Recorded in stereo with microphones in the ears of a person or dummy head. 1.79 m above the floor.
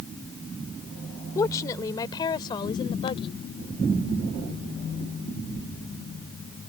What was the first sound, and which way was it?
A woman speaking, 15° left (ahead or behind).